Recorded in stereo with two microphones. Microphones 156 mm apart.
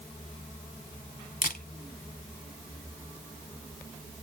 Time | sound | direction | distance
1.4 | a camera shutter | 60° left (ahead or behind) | 1.1 m